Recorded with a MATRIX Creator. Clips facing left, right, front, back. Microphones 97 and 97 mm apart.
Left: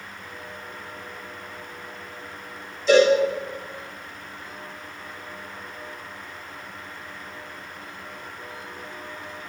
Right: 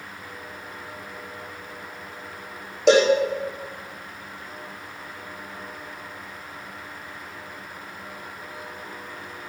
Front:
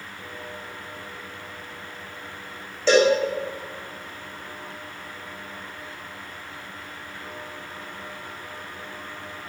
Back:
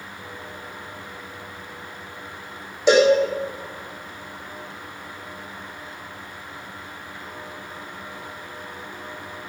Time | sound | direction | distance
2.9 | a cowbell | 105° right | 5 m